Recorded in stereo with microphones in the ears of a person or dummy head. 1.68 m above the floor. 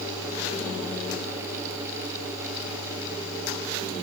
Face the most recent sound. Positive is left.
No sound to turn to.